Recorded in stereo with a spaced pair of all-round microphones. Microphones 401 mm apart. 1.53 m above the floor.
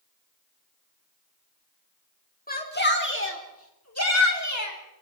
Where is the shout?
20° left (ahead or behind), 4.5 m; by 4.8 s 45° left (ahead or behind), 5.5 m.